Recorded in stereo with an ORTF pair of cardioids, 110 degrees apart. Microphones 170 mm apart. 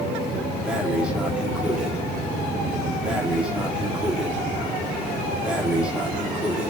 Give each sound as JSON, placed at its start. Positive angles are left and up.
{"t": 0.7, "sound": "breathing", "azimuth_deg": -5, "distance_m": 3.0}